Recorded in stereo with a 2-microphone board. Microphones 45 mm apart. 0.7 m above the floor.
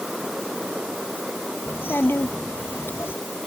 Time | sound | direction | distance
1.7 | a child speaking | 65° left (ahead or behind) | ?